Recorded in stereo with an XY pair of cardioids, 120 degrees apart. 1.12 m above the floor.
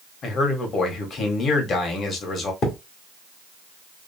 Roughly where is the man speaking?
Ahead left.